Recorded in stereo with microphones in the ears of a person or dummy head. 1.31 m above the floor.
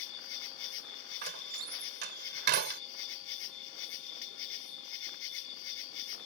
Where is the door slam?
55° right (ahead or behind).